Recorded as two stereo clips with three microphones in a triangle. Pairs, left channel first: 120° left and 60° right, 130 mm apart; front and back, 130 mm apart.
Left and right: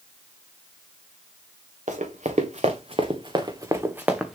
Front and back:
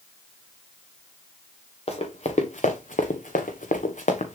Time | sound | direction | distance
1.9 | running footsteps | 40° right | 1.9 m